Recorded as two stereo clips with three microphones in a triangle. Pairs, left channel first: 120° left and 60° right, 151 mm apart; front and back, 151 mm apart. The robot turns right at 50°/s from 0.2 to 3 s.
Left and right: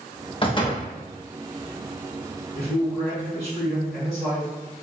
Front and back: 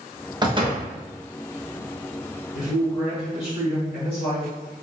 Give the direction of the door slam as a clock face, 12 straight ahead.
7 o'clock.